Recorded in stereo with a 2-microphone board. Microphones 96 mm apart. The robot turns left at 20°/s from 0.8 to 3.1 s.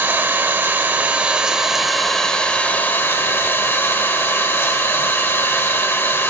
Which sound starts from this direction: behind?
An engine running, at 0.0 s.